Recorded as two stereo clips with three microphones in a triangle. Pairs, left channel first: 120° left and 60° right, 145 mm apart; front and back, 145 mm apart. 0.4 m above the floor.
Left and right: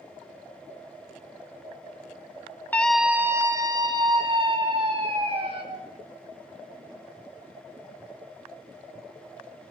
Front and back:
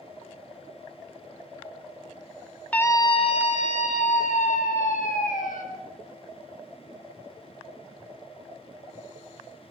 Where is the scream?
65° left, 0.8 m; by 5.6 s 15° right, 3.5 m.